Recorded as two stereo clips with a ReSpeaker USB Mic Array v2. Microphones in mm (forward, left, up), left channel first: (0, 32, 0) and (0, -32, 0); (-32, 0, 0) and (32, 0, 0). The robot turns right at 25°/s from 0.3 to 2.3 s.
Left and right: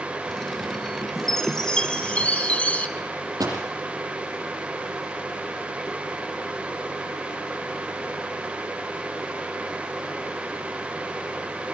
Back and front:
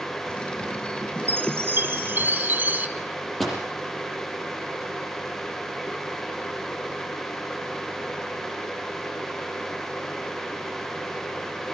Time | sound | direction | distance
1.3 | a chime | 10° left | 1.5 m
3.0 | a microwave | 95° right | 6.5 m